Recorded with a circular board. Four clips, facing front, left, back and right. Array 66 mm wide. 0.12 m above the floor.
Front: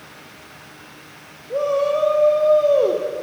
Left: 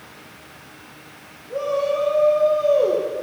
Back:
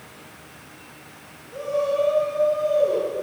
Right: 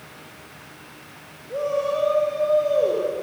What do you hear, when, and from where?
1.5 s a shout: straight ahead, 5.5 m; by 3.2 s 20° left, 5 m